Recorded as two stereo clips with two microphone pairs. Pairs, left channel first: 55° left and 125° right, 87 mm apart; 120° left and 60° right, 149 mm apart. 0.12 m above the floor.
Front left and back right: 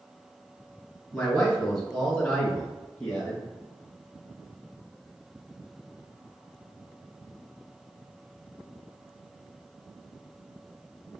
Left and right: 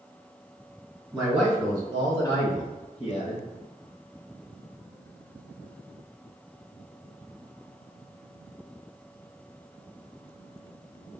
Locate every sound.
1.1 s a man speaking: 10° right, 1.3 m; by 3.4 s 135° left, 1.9 m